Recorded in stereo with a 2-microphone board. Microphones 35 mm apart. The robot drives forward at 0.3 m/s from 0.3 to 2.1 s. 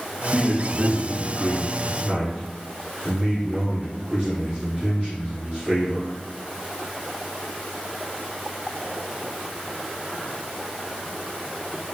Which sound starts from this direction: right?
A man speaking, at 0.3 s.